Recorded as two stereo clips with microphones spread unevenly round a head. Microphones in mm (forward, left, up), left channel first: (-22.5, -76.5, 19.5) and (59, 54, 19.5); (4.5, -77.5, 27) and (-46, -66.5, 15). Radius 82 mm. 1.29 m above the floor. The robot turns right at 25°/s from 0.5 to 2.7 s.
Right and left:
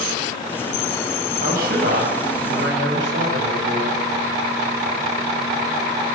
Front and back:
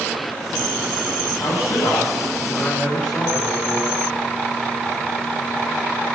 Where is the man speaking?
30° left, 7.5 m; by 4.0 s 65° left, 7.5 m.